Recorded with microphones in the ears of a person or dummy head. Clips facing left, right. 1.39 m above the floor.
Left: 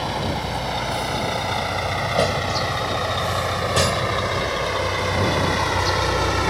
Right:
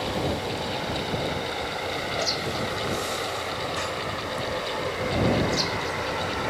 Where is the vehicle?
70° left (ahead or behind); by 6.5 s 80° left.